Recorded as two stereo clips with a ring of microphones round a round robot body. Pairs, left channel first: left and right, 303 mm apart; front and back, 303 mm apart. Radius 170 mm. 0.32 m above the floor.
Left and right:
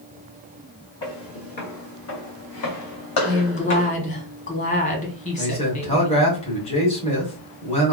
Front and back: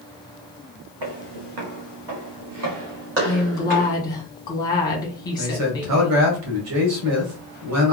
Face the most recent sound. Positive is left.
turn(degrees=155)